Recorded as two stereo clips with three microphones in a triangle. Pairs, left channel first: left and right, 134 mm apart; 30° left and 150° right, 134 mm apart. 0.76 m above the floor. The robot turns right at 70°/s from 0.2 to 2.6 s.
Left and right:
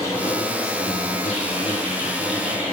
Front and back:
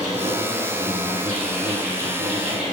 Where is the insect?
25° left, 1.3 m; by 2.7 s 170° right, 1.3 m.